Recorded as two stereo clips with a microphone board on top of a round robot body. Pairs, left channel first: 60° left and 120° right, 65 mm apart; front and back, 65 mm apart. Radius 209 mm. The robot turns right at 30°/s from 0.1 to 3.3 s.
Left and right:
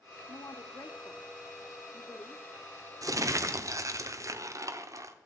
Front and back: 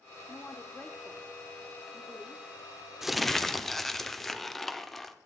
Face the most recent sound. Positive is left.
turn(degrees=-85)